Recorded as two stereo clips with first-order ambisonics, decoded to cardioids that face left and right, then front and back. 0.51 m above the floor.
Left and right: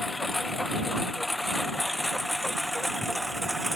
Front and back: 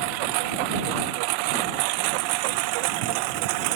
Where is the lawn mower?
170° left; by 3.8 s straight behind.